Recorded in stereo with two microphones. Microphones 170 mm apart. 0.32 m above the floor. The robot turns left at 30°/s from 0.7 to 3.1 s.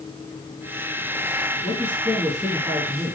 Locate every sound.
1.6 s a man speaking: 20° left, 6.5 m; by 3.2 s 25° right, 6.5 m